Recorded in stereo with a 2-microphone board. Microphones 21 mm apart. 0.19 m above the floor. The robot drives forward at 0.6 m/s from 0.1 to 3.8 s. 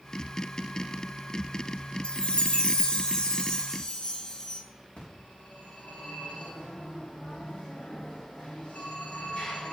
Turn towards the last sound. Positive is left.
turn(degrees=55)  # may be behind; listen again after turning